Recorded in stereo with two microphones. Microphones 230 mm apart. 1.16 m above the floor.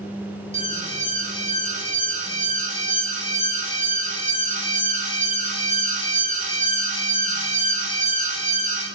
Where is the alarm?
30° right (ahead or behind), 0.8 m.